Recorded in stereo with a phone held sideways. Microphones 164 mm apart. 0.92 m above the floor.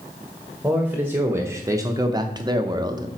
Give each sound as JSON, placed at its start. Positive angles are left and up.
{"t": 0.6, "sound": "a man speaking", "side_deg": -10, "distance_m": 1.1}